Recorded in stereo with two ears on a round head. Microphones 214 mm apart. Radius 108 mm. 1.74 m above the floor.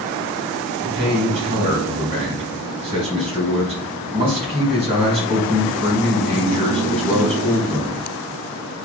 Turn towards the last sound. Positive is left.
turn(degrees=-25)  # may be behind; listen again after turning